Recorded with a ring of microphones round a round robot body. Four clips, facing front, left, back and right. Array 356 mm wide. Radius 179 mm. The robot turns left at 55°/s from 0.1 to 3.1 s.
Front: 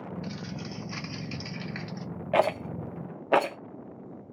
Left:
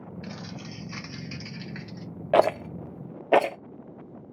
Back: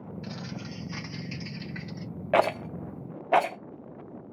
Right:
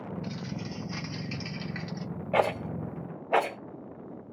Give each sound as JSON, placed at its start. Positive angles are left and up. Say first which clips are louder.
{"t": 0.2, "sound": "crumpling", "louder": "right 2 dB, front 1 dB", "azimuth_deg": 85, "distance_m": 1.6}
{"t": 2.3, "sound": "a rattle", "louder": "left 5 dB, back 1 dB", "azimuth_deg": 105, "distance_m": 0.6}